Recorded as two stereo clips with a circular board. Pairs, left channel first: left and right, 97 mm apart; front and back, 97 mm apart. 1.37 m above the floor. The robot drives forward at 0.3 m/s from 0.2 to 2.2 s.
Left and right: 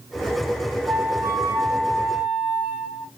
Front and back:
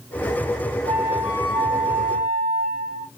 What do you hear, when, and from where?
0.9 s a flute: 165° right, 1.9 m